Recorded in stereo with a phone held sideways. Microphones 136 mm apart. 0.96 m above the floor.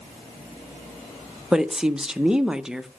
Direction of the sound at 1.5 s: 5° right (ahead or behind).